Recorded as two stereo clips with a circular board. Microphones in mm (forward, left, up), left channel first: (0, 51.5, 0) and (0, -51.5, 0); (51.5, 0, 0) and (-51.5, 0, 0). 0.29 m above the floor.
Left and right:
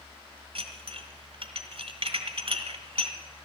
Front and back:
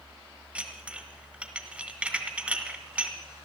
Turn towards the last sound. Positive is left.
turn(degrees=-105)